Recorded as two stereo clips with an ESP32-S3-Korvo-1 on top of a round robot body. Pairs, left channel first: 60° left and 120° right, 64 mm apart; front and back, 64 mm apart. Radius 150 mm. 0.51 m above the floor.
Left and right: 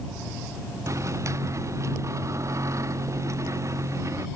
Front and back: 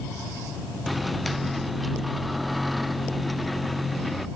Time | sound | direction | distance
0.9 | a microwave | 90° right | ?